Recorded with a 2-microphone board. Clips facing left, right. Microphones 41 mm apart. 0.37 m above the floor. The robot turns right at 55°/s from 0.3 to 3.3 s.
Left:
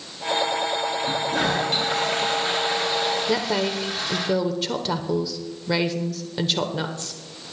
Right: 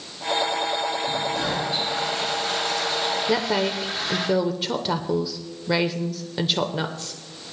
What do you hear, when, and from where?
1.0 s a toilet flushing: 65° left, 4 m; by 4.3 s 175° right, 4 m
3.3 s a woman speaking: 5° right (ahead or behind), 0.9 m